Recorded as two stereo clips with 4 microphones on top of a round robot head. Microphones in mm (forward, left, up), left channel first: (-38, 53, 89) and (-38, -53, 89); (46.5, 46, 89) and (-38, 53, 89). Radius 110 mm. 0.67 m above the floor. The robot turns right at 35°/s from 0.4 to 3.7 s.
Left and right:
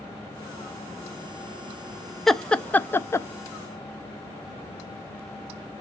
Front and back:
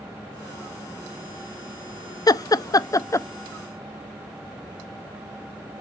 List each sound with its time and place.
2.3 s laughter: straight ahead, 0.7 m; by 3.3 s 40° left, 0.7 m